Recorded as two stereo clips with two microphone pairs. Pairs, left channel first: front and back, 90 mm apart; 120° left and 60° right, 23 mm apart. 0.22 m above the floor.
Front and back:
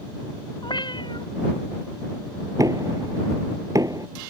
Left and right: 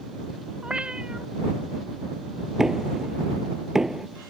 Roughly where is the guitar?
No guitar in this recording.